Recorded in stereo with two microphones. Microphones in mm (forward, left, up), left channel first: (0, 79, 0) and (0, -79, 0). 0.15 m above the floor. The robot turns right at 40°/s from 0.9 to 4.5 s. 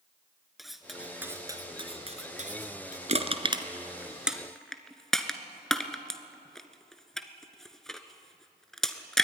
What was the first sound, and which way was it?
Cutlery clinking, centre (ahead or behind).